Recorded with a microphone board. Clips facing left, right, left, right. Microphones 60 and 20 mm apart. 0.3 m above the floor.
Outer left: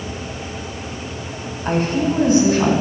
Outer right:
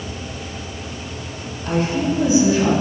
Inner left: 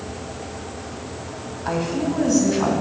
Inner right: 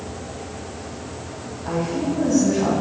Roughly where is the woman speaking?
Left.